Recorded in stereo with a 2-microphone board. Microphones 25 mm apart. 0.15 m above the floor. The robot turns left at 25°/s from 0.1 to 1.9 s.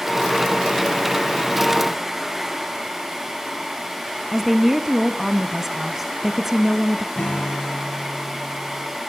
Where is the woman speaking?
10° right (ahead or behind), 1.2 m.